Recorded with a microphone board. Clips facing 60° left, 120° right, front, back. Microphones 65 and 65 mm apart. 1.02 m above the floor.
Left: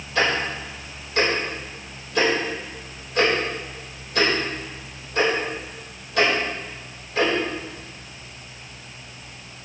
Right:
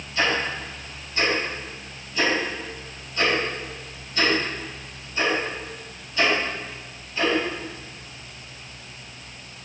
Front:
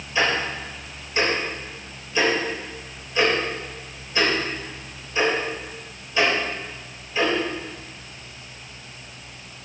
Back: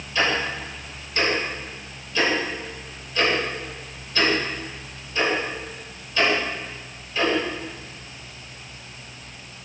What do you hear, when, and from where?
0.1 s ticking: 70° left, 4.5 m